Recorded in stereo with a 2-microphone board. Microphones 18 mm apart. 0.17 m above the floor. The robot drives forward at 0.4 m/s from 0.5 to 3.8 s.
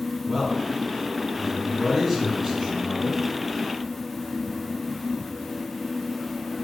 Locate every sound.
0.3 s a man speaking: 15° right (ahead or behind), 1.7 m; by 3.2 s 10° right (ahead or behind), 2 m